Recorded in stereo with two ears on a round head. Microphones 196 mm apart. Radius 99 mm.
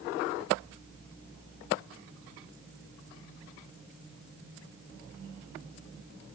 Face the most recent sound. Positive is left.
No sound to turn to.